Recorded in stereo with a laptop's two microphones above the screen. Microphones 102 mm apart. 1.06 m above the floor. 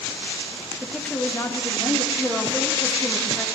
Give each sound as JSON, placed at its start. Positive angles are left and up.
{"t": 0.8, "sound": "a woman speaking", "side_deg": -5, "distance_m": 1.0}
{"t": 2.2, "sound": "a woman speaking", "side_deg": 20, "distance_m": 1.8}